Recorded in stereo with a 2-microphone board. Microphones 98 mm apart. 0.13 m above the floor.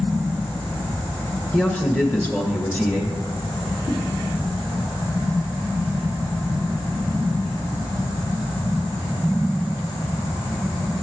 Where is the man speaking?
15° left (ahead or behind), 1.9 m.